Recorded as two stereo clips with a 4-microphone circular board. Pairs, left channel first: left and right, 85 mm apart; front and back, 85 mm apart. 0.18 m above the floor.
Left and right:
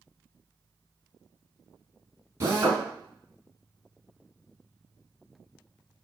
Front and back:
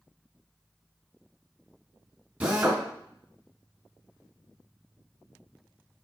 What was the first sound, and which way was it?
A drill, 120° right.